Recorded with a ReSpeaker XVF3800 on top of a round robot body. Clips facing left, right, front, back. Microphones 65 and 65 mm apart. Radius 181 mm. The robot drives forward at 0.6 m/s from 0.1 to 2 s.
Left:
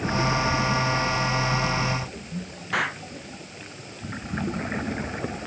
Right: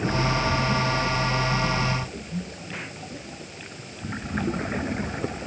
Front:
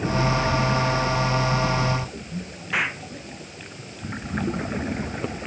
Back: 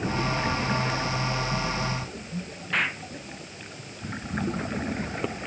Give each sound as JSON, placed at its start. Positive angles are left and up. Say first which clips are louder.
{"t": 2.7, "sound": "an explosion", "louder": "left 12 dB, front 2 dB", "azimuth_deg": 85}